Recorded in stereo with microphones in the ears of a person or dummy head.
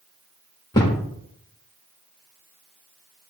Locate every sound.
0.7 s a thud: 10° left (ahead or behind), 1.1 m